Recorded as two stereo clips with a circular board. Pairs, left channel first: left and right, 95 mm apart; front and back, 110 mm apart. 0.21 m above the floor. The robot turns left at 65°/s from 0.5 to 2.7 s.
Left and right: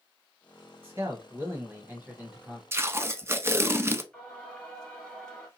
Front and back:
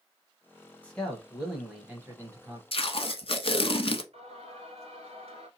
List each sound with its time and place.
0.8 s a man speaking: 60° right, 1.0 m; by 2.6 s 175° right, 1.0 m
2.7 s tape being pulled: 25° right, 0.5 m
4.1 s singing: 170° left, 1.6 m